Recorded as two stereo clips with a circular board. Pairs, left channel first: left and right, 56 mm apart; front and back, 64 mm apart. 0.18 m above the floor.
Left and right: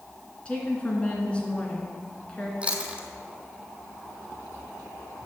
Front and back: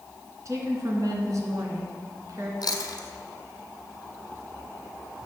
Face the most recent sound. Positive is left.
turn(degrees=-20)